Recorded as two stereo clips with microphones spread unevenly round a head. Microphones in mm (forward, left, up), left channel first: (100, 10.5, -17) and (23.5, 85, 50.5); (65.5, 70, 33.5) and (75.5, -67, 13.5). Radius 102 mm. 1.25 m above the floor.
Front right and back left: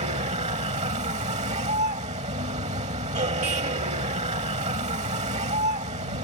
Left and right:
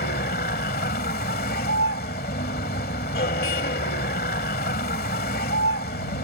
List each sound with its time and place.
0.0 s a vehicle: 140° left